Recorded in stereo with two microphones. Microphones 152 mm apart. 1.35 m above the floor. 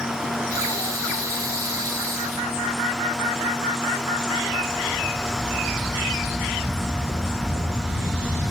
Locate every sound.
0.5 s breathing: 20° right (ahead or behind), 2 m